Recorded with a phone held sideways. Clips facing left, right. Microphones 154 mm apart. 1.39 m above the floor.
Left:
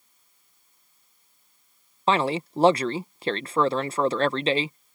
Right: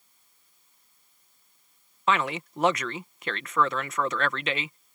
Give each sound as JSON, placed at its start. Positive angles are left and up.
{"t": 2.1, "sound": "a man speaking", "side_deg": 30}